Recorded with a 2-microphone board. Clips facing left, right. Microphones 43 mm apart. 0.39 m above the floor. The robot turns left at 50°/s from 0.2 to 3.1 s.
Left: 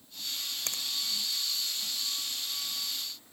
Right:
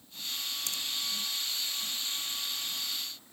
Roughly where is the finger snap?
Left.